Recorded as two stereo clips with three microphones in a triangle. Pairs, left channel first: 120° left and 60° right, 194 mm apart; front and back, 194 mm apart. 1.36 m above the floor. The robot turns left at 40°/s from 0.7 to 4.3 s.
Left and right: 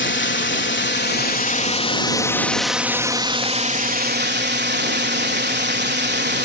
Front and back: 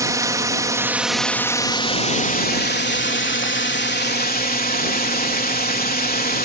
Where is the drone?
110° left; by 6.5 s 35° right.